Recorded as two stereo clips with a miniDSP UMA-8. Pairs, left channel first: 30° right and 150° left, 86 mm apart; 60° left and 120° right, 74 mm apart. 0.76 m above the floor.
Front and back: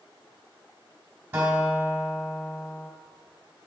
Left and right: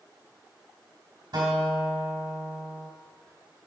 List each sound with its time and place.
1.3 s a guitar: 145° right, 3.5 m